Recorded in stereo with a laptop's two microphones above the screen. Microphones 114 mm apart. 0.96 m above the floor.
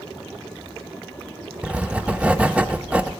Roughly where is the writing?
Centre.